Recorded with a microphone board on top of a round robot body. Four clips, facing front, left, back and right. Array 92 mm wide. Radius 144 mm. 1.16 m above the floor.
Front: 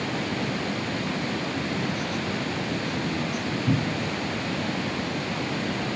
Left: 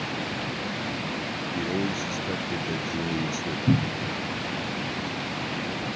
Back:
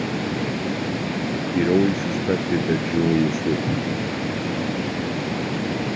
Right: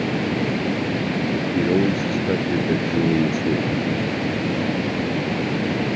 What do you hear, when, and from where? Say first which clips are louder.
0.0 s running water: right 9 dB, back 3 dB; 115° right
1.5 s a man speaking: right 9 dB, back 10 dB; 145° right
3.7 s a cupboard door: right 3 dB, back 2 dB; 65° left